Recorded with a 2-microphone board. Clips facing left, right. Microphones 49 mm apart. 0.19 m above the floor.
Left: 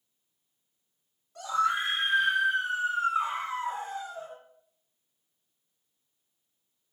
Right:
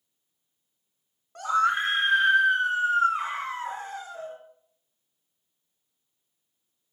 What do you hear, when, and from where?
1.4 s a scream: 45° right (ahead or behind), 1.6 m; by 4.4 s 50° right (ahead or behind), 3 m